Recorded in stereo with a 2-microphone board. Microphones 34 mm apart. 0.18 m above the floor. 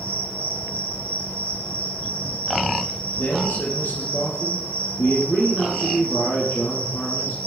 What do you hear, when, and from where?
0.0 s an insect: 35° left (ahead or behind), 7 m
3.2 s a man speaking: 75° left (ahead or behind), 4 m